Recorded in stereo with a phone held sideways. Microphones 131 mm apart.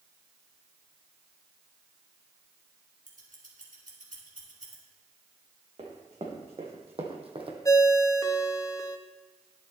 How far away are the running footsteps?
About 3.5 m.